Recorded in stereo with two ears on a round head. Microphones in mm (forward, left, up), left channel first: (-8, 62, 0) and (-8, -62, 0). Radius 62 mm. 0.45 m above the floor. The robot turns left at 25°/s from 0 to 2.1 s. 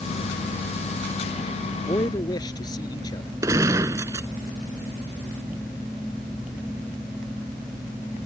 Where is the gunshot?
20° right (ahead or behind).